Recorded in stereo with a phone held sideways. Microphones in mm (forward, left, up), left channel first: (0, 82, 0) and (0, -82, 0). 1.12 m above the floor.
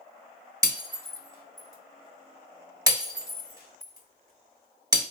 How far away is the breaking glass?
About 1.2 m.